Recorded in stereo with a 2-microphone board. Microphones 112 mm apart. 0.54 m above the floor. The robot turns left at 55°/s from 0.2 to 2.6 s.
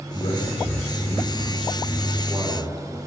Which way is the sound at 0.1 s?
85° left.